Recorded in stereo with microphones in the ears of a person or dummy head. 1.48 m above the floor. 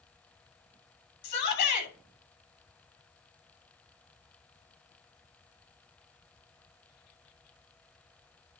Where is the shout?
65° left (ahead or behind), 3.5 m.